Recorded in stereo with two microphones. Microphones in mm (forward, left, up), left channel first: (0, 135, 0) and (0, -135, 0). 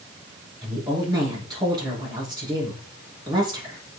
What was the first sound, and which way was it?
A woman speaking, 15° right (ahead or behind).